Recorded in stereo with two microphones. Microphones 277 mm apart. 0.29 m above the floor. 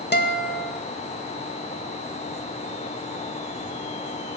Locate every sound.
0.1 s a guitar: 40° left (ahead or behind), 0.9 m